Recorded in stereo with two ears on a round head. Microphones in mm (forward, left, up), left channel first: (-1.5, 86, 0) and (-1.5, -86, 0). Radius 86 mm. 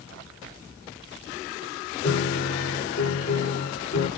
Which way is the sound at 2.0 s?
70° left (ahead or behind).